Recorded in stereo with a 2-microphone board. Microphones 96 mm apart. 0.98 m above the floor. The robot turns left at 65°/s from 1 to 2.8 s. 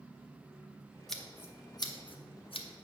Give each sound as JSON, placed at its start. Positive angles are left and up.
{"t": 1.1, "sound": "scissors", "side_deg": 0, "distance_m": 0.7}